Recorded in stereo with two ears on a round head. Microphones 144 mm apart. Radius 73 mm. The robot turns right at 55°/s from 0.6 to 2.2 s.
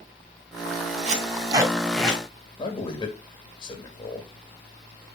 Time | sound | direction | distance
1.1 | tape being pulled | 45° right (ahead or behind) | 1.8 m
2.6 | a man speaking | 30° left (ahead or behind) | 1.7 m